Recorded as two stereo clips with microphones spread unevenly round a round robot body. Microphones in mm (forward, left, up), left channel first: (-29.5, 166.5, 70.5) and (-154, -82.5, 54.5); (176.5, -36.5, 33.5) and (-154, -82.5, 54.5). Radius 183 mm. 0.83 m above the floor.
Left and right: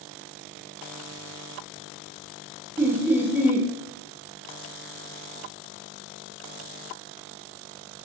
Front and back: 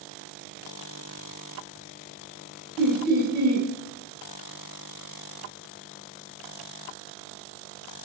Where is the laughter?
Straight behind, 0.7 m.